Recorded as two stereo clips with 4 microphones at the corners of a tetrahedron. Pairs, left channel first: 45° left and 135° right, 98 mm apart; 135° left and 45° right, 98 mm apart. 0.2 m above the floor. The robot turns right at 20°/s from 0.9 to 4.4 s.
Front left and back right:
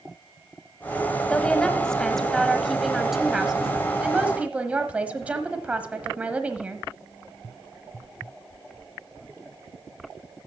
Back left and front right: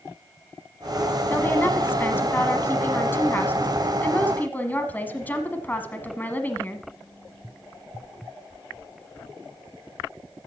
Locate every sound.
1.3 s a woman speaking: 110° left, 1.1 m; by 6.8 s 170° left, 1.1 m